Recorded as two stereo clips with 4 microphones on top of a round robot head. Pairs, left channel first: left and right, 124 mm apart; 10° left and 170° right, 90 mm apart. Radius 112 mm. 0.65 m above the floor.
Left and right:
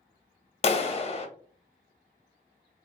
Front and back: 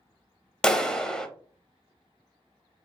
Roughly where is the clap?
Left.